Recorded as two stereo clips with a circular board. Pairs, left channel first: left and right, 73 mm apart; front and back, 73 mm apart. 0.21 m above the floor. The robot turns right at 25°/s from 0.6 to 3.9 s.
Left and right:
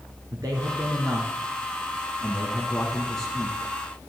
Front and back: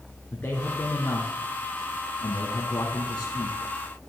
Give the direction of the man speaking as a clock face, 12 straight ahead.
2 o'clock.